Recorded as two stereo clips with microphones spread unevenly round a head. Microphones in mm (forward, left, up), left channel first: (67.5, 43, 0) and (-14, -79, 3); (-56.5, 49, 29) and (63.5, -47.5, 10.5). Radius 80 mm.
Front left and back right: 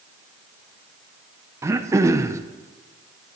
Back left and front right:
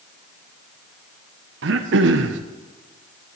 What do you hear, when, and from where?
1.6 s throat clearing: 55° right, 0.6 m